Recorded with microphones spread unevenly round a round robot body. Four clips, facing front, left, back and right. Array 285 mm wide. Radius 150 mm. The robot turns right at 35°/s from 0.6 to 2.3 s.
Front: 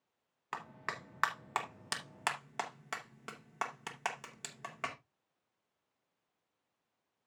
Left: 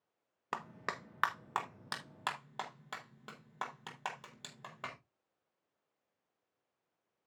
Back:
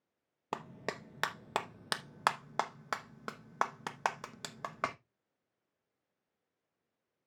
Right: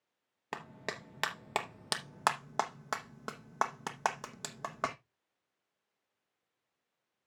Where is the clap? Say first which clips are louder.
Left 1 dB, back 2 dB; 175° right, 0.9 m; by 5.0 s 115° right, 0.9 m.